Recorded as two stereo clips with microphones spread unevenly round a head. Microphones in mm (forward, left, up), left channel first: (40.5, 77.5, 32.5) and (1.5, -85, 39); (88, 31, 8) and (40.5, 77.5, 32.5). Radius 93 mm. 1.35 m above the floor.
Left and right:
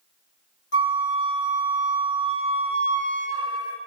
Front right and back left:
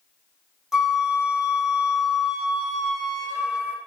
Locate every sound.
0.7 s a flute: 50° left, 1.3 m